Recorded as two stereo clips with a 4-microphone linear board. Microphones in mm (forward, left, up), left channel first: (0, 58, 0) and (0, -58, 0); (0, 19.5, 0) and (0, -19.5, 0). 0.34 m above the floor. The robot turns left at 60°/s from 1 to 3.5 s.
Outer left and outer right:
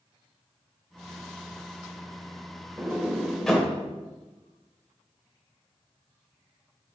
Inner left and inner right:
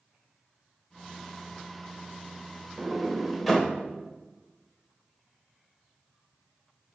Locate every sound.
2.8 s a sliding door: 20° right (ahead or behind), 1.4 m; by 3.7 s 5° left (ahead or behind), 1.4 m